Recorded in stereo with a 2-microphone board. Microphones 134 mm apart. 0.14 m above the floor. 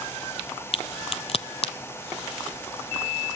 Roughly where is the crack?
Left.